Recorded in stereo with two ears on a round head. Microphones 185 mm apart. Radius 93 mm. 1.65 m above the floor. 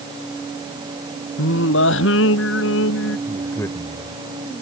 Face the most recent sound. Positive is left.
turn(degrees=15)  # may be behind; listen again after turning